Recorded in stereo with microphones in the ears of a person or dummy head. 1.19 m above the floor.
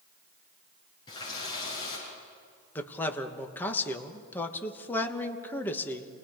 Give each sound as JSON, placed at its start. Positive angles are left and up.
{"t": 1.1, "sound": "a running tap", "side_deg": 35, "distance_m": 9.5}
{"t": 2.8, "sound": "a man speaking", "side_deg": 15, "distance_m": 1.4}